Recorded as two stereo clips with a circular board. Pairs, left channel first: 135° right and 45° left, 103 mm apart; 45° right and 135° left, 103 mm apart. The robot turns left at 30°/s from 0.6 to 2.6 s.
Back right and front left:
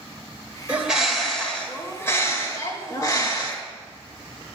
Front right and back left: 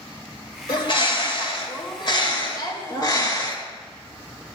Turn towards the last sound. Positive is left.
turn(degrees=-85)